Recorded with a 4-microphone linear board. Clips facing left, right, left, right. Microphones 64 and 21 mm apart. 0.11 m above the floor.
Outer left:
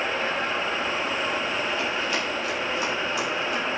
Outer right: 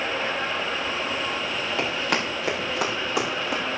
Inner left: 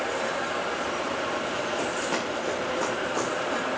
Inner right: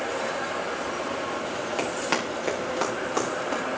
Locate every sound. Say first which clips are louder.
1.8 s running footsteps: outer right 1 dB, inner right 1 dB; 70° right (ahead or behind), 7 m; by 3.6 s 85° right, 7.5 m